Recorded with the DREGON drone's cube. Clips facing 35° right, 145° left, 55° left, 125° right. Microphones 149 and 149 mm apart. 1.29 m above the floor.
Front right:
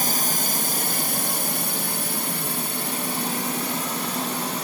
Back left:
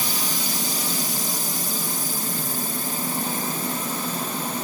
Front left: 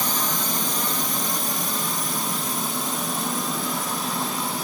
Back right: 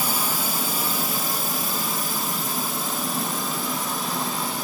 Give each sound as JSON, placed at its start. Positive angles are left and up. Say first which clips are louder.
{"t": 0.0, "sound": "a drone", "louder": "front right 2 dB, even", "azimuth_deg": -45}